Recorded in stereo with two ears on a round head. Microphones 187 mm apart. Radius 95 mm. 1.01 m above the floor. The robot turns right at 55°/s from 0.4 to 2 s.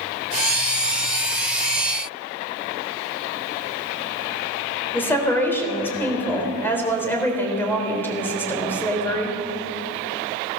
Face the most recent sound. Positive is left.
turn(degrees=10)  # may be behind; listen again after turning